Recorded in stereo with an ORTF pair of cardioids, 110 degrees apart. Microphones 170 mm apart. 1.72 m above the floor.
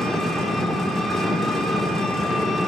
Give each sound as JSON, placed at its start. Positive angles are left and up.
{"t": 0.0, "sound": "an engine running", "azimuth_deg": 0, "distance_m": 2.0}